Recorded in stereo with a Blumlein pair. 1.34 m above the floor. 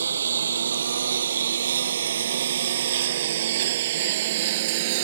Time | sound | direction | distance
0.0 | a lawn mower | 70° right | ?